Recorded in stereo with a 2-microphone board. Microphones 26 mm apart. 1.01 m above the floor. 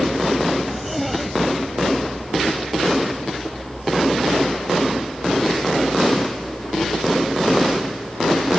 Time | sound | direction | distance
0.7 | a zipper | centre (ahead or behind) | ?